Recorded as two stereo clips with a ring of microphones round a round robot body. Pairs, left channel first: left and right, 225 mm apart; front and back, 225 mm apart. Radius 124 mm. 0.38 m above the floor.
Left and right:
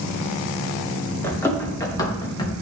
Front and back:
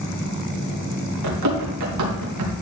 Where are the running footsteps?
170° left, 4.5 m; by 2.5 s 160° left, 3.5 m.